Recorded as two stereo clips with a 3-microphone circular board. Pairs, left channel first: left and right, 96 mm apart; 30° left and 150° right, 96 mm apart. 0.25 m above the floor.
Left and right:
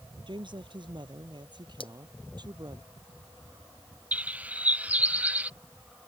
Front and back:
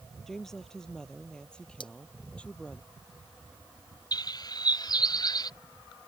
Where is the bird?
15° right.